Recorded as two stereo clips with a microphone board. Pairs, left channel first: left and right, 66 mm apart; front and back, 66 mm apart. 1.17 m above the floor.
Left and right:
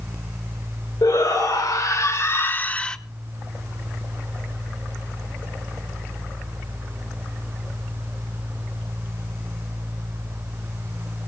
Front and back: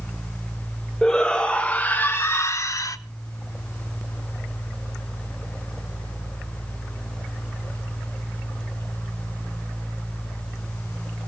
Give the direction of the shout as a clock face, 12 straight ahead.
9 o'clock.